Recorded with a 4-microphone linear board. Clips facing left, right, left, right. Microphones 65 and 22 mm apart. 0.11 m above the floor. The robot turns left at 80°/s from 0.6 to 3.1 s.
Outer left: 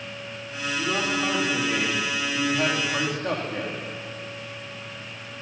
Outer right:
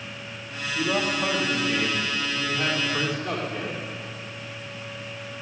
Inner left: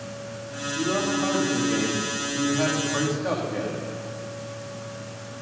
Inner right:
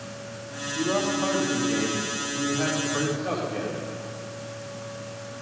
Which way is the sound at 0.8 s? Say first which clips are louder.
Outer right 1 dB, even; 90° right.